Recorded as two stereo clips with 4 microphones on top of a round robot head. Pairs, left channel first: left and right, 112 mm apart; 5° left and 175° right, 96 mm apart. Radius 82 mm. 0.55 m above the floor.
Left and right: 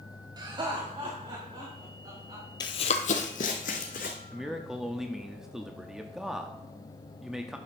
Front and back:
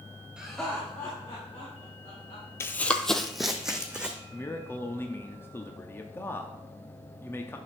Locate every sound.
0.4 s laughter: 100° right, 1.1 m; by 2.5 s 45° right, 3.5 m
2.6 s running footsteps: 55° left, 0.6 m; by 4.2 s 105° left, 2 m
4.3 s a man speaking: 10° right, 0.7 m